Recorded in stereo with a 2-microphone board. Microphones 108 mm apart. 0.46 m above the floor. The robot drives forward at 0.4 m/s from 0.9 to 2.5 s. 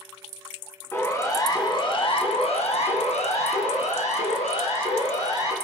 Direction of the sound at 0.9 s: 20° left (ahead or behind).